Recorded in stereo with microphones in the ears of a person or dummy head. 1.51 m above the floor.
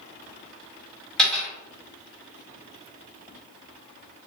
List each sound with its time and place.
1.2 s a dropped coin: 5° left (ahead or behind), 1.8 m